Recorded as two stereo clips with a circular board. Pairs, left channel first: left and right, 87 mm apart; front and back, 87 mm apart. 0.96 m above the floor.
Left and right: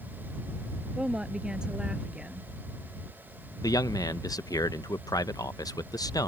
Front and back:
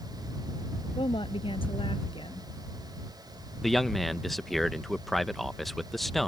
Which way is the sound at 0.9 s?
10° right.